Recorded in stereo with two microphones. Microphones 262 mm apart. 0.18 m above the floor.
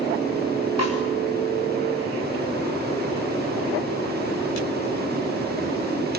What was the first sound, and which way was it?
A snare drum, 75° left (ahead or behind).